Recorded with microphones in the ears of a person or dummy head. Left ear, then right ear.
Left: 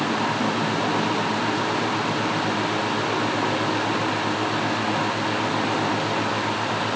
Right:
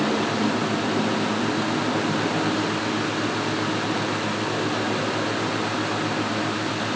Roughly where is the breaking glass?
I don't hear breaking glass.